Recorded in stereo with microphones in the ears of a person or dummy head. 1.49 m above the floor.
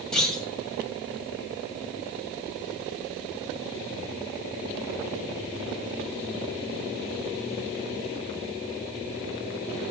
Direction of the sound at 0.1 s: 5° left (ahead or behind).